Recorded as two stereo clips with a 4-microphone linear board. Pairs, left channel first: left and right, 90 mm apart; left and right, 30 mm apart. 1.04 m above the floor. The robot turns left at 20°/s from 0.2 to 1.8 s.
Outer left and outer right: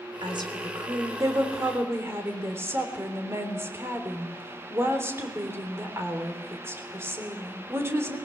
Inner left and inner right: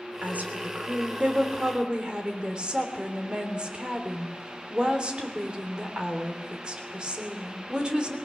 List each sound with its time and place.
0.2 s a woman speaking: 120° right, 3 m; by 8.2 s 150° right, 3 m